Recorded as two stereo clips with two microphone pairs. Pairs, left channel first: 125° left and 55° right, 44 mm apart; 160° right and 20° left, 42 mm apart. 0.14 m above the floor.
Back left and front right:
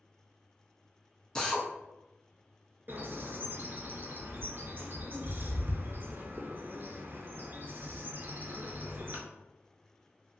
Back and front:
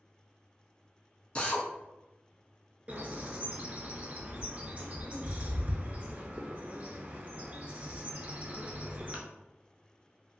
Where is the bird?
30° right, 0.5 m.